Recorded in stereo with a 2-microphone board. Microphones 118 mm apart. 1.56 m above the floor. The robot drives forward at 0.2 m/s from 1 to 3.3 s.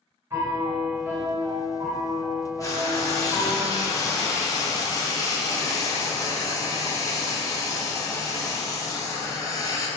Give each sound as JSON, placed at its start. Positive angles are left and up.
{"t": 0.3, "sound": "a piano", "side_deg": -20, "distance_m": 1.4}
{"t": 2.6, "sound": "frying", "side_deg": 25, "distance_m": 0.5}